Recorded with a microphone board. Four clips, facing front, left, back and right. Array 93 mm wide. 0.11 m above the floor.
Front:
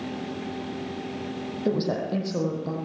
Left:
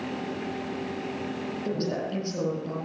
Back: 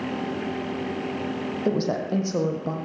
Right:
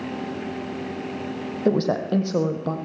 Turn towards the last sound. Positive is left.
turn(degrees=-115)